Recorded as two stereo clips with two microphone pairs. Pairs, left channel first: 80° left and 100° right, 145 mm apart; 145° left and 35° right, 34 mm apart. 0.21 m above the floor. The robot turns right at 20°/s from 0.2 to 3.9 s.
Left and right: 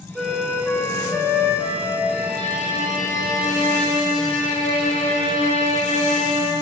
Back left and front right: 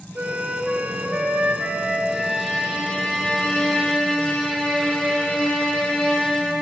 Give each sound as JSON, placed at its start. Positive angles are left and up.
{"t": 0.1, "sound": "a flute", "azimuth_deg": -5, "distance_m": 1.1}
{"t": 2.1, "sound": "a violin", "azimuth_deg": 60, "distance_m": 2.0}